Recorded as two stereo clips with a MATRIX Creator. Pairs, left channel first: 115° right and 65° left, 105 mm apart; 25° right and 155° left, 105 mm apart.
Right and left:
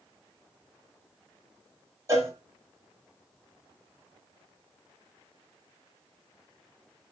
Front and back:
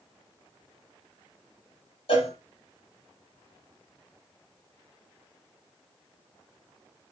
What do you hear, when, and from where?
2.1 s a cowbell: 5° left, 1.4 m